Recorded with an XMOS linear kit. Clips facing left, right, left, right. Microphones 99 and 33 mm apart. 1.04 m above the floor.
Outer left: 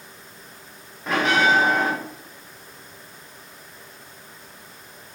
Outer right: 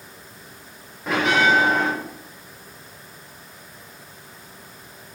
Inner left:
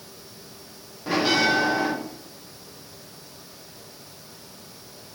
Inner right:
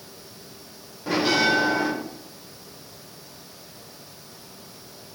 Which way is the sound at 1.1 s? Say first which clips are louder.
Outer right 1 dB, even; centre (ahead or behind).